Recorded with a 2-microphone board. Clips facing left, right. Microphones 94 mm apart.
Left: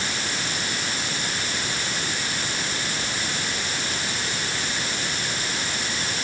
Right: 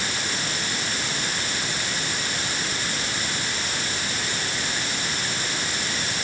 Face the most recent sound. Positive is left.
No sound to turn to.